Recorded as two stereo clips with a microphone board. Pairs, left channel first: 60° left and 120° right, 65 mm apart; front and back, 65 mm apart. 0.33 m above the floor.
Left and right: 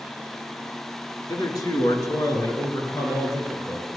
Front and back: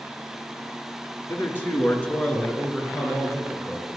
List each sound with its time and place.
1.3 s a man speaking: 55° left, 3 m; by 4.0 s 90° left, 6 m